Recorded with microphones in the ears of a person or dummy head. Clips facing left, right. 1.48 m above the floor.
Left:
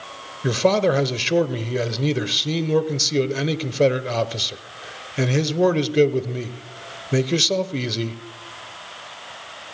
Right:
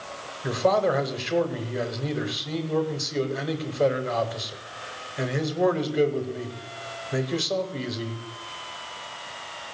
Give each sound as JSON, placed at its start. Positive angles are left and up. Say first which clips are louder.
{"t": 0.4, "sound": "a man speaking", "louder": "left 4 dB", "side_deg": 40, "distance_m": 0.9}